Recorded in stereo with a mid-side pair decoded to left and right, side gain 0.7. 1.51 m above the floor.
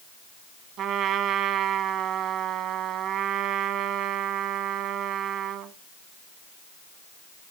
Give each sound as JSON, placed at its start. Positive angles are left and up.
{"t": 0.8, "sound": "a trumpet", "azimuth_deg": -55, "distance_m": 1.5}